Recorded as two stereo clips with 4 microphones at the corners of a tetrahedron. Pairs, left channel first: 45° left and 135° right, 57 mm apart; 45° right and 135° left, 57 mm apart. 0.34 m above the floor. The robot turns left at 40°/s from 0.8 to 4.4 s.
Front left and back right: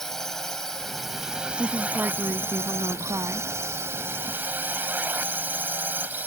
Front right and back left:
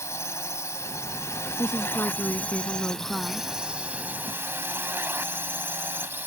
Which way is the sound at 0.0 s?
35° right.